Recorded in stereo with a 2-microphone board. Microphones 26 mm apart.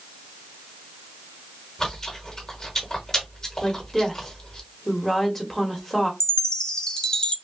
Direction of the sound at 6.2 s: 30° left (ahead or behind).